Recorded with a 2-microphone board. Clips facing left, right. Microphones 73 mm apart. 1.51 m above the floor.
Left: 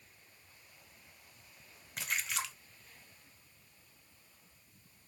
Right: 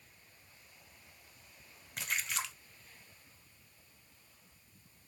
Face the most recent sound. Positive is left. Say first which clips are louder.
# even
turn(degrees=0)  # may be behind; listen again after turning